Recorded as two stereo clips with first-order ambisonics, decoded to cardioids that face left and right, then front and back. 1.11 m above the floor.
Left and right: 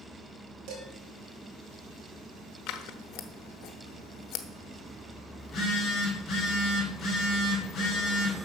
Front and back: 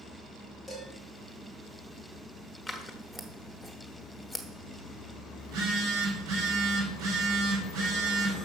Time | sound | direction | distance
0.7 | dishes clattering | 100° right | 3.5 m
2.7 | scissors | 90° left | 1.0 m
5.4 | a phone buzzing | 165° left | 4 m